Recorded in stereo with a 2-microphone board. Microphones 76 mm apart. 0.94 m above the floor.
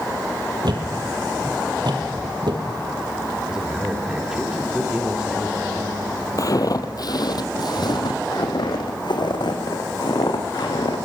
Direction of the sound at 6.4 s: 50° left (ahead or behind).